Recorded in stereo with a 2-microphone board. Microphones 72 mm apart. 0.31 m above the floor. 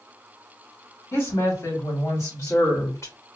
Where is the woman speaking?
45° left (ahead or behind), 2.0 m; by 3.1 s 50° left (ahead or behind), 2.0 m.